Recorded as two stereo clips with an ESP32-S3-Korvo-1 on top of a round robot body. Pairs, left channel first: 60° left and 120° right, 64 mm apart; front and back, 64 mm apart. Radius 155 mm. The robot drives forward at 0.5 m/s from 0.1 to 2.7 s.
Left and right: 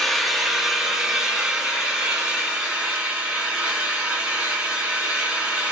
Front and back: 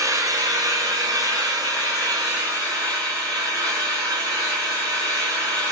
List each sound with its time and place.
0.0 s an engine running: 145° left, 0.8 m; by 5.7 s 170° left, 2.0 m